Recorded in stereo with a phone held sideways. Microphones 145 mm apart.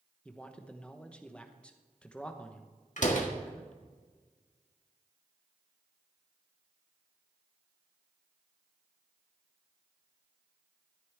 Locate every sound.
0.2 s a man speaking: 5° left (ahead or behind), 1.0 m
3.0 s a door slam: 60° left (ahead or behind), 1.7 m